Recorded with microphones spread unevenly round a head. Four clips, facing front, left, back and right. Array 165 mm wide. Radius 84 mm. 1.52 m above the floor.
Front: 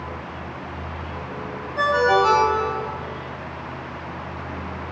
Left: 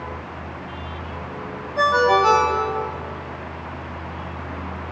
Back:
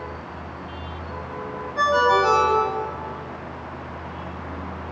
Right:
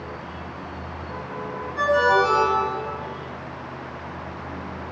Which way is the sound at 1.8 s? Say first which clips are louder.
Left 2 dB, even; 85° left.